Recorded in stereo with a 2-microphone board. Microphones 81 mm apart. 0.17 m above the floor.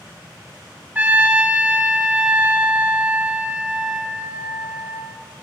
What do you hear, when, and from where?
0.9 s a trumpet: 20° right (ahead or behind), 0.7 m